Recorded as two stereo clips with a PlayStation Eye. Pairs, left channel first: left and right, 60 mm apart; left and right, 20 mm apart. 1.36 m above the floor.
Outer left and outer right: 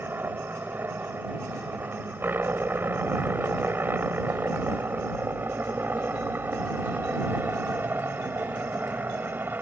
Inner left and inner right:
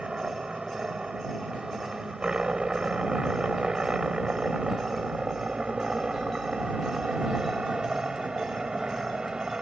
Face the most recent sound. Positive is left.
turn(degrees=-35)  # may be behind; listen again after turning